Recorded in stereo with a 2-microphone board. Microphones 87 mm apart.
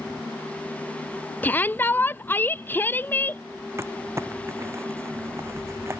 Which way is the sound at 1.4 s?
20° left (ahead or behind).